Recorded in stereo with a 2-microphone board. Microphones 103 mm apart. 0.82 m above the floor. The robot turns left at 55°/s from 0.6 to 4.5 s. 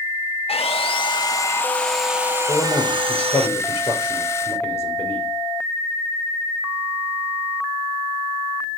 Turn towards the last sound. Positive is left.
turn(degrees=25)